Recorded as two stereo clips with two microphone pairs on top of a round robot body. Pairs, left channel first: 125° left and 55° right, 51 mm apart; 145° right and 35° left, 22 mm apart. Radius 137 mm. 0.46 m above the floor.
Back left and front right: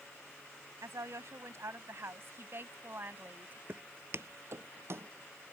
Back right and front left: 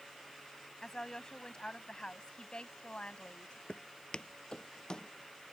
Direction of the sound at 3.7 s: 95° right.